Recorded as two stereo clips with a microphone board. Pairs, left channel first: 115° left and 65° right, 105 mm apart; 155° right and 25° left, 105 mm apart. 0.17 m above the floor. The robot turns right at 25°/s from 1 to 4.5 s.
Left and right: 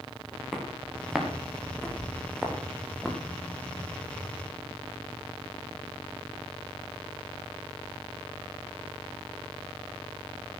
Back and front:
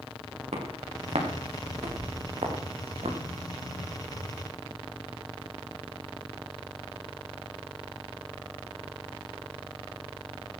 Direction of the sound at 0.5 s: 20° left.